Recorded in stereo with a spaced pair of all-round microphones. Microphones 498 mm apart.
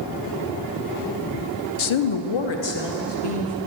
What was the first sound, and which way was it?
A woman speaking, 75° left (ahead or behind).